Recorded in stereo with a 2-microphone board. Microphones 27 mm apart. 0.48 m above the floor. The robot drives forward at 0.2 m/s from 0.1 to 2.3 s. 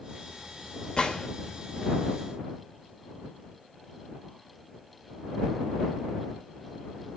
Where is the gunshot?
35° left (ahead or behind), 1.7 m.